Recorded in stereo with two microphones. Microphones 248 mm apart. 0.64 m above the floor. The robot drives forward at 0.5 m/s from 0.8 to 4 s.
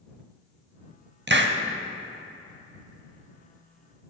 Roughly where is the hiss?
Right.